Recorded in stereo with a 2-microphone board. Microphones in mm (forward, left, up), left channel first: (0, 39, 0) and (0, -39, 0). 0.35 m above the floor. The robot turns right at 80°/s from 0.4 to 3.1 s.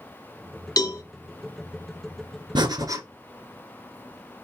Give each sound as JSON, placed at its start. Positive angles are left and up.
{"t": 0.8, "sound": "a cowbell", "side_deg": 55, "distance_m": 1.0}
{"t": 2.5, "sound": "breathing", "azimuth_deg": -75, "distance_m": 1.4}